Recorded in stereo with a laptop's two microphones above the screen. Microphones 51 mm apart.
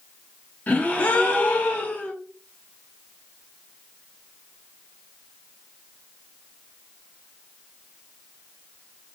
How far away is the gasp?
About 1.1 m.